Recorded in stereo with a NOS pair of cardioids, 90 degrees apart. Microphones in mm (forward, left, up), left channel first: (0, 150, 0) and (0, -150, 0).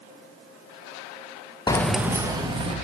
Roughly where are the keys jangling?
Ahead.